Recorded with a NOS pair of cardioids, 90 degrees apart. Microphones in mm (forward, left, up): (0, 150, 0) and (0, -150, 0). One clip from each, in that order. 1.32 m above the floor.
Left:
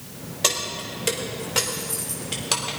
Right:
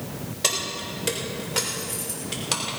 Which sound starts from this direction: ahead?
Keys jangling, at 0.4 s.